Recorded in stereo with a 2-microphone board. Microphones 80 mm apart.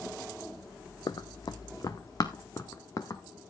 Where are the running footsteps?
60° left (ahead or behind), 0.7 m; by 3.2 s 40° left (ahead or behind), 1.8 m.